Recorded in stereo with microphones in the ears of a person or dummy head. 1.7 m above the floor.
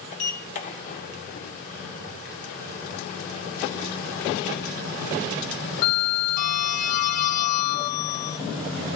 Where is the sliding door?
45° left (ahead or behind), 0.6 m.